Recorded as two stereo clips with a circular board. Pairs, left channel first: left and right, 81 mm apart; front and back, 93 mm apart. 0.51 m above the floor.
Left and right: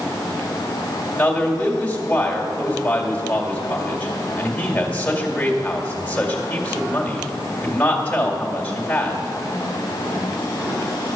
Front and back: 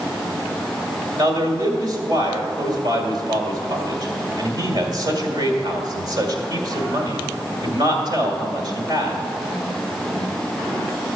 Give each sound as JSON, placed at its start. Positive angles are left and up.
{"t": 1.2, "sound": "a man speaking", "azimuth_deg": 160, "distance_m": 2.0}